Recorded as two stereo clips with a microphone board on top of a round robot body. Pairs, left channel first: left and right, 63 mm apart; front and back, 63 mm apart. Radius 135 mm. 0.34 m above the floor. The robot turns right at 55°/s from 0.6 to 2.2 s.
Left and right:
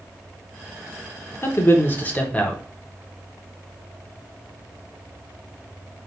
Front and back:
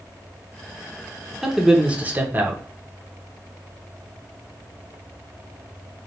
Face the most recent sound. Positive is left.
turn(degrees=140)